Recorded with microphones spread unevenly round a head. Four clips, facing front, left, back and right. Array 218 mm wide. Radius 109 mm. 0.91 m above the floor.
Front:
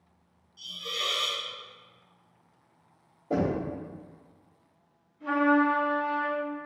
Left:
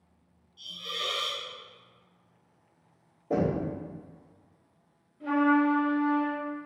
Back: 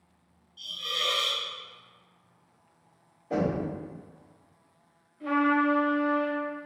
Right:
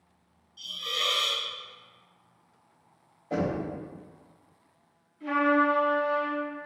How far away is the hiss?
About 0.9 m.